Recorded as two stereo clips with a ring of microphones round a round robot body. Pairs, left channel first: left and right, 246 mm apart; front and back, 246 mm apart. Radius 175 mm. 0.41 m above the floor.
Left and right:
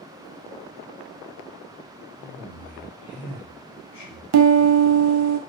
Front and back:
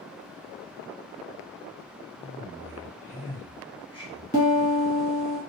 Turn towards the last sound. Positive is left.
turn(degrees=-70)